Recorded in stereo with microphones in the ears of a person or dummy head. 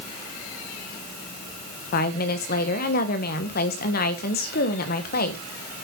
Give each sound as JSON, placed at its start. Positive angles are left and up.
{"t": 1.9, "sound": "a woman speaking", "side_deg": 50, "distance_m": 1.5}